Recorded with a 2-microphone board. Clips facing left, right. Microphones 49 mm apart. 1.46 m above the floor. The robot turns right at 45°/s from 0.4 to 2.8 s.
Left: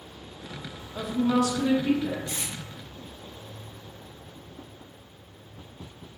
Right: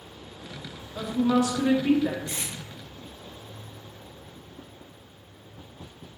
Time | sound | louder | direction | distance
0.9 | a woman speaking | right 1 dB | 175° left | 0.6 m
2.3 | tape being pulled | even | 30° right (ahead or behind) | 1.1 m